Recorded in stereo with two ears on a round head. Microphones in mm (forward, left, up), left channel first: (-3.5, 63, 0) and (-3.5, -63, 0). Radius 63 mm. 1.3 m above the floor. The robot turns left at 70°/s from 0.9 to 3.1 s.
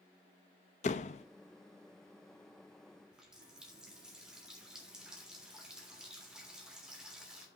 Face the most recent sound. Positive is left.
turn(degrees=-5)  # may be behind; listen again after turning